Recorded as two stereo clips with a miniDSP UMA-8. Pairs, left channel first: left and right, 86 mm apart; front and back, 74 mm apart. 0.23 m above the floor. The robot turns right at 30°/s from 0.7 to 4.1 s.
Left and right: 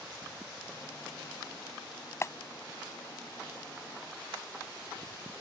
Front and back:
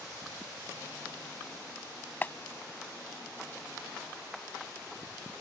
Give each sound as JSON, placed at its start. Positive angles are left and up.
{"t": 2.2, "sound": "a clap", "azimuth_deg": 50}